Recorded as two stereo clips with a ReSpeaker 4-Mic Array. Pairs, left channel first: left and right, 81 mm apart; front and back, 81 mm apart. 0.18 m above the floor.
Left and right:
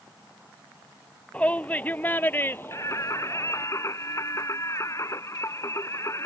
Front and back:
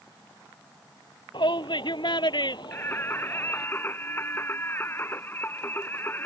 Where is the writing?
I don't hear writing.